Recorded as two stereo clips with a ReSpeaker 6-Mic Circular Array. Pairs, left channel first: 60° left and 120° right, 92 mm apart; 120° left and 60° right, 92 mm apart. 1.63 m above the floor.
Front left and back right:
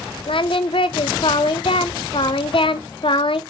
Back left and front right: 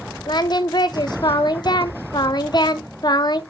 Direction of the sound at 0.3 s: 80° left.